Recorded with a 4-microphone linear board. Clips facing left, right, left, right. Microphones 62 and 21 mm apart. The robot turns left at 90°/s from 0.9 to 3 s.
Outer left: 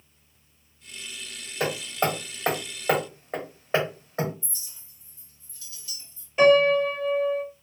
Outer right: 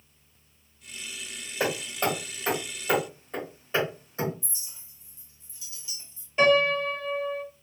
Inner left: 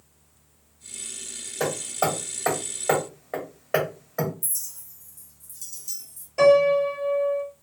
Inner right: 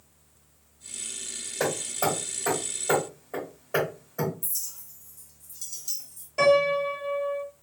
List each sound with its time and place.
1.6 s hammering: 10° right (ahead or behind), 1.6 m; by 4.3 s 50° left (ahead or behind), 1.6 m
4.4 s a clink: 20° right (ahead or behind), 0.6 m
6.4 s a piano: 5° left (ahead or behind), 1.7 m